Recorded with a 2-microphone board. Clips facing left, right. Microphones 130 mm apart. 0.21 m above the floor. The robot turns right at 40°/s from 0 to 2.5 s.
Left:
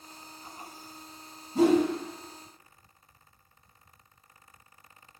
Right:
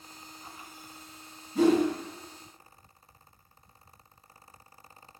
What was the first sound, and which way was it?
A whoosh, 35° left (ahead or behind).